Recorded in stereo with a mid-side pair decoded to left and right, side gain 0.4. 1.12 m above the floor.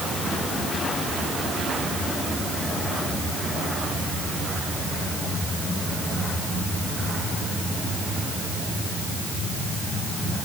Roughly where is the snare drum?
I don't hear a snare drum.